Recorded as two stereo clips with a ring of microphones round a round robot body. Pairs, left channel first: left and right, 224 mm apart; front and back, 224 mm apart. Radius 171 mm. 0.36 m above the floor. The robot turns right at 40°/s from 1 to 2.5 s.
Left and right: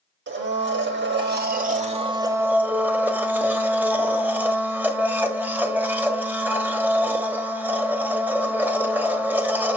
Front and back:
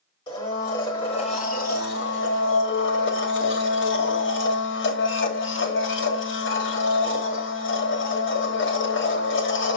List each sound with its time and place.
0.3 s a blender: 70° right, 1.4 m; by 9.8 s 10° right, 1.4 m